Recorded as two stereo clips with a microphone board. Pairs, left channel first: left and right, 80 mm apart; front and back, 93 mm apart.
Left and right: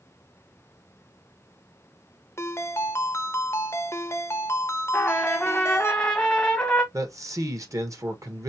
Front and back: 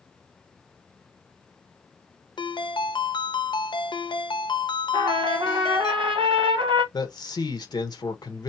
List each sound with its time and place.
2.4 s a ringtone: 35° left, 0.6 m
4.9 s a trumpet: 170° left, 1.2 m
6.9 s a man speaking: 45° right, 1.2 m